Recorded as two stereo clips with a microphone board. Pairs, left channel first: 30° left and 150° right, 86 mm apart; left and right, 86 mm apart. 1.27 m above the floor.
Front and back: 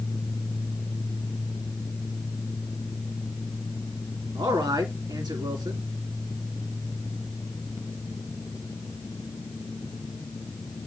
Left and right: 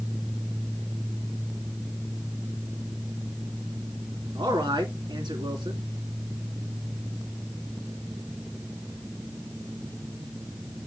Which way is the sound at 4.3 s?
120° right.